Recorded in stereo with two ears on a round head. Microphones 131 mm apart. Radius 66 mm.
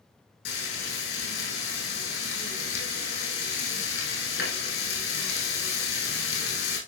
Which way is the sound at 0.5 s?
80° left.